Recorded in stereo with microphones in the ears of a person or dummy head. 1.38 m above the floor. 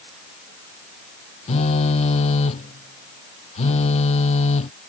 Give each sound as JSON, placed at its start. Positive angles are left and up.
{"t": 1.5, "sound": "a phone buzzing", "side_deg": 35}